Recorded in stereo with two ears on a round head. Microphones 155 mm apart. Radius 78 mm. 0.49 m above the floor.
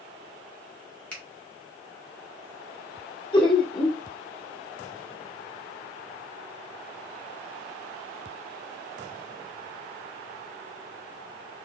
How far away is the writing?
I don't hear writing.